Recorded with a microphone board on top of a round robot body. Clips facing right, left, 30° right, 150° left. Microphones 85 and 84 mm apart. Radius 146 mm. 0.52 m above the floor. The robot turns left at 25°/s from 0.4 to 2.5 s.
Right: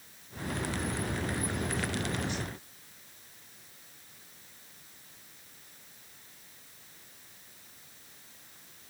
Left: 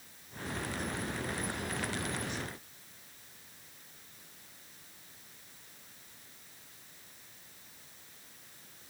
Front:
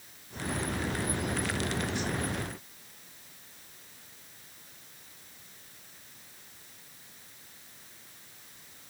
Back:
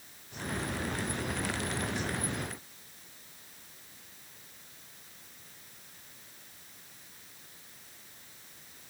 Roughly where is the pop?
No pop in this recording.